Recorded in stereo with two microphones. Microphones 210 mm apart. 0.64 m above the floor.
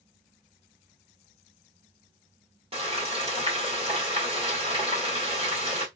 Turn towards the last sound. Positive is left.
turn(degrees=-30)  # may be behind; listen again after turning